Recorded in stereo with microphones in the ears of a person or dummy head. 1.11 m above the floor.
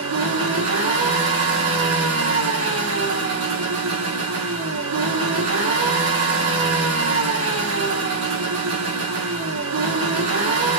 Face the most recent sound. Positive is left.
turn(degrees=-80)